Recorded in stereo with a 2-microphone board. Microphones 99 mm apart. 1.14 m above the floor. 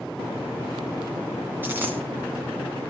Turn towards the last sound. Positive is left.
turn(degrees=-20)  # may be behind; listen again after turning